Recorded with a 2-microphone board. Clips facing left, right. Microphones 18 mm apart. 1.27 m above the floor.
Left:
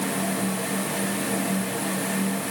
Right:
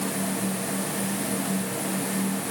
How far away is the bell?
I don't hear a bell.